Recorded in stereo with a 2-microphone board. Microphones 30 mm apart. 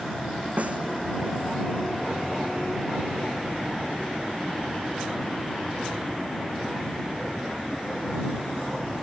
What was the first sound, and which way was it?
A snare drum, 50° right (ahead or behind).